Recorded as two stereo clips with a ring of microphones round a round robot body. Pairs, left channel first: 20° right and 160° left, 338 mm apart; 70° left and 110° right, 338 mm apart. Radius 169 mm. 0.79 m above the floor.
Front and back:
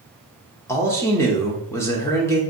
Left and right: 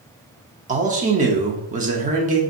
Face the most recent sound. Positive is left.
turn(degrees=-95)